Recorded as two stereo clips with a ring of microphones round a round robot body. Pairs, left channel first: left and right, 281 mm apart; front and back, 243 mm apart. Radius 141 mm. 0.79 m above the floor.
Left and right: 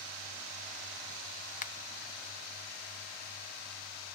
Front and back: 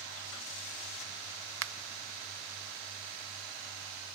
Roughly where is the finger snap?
Behind left.